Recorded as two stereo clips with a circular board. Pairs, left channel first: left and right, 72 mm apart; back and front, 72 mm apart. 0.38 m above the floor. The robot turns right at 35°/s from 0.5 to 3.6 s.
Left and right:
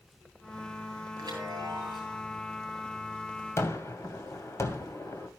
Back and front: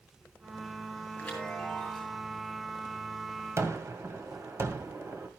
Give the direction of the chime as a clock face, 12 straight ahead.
4 o'clock.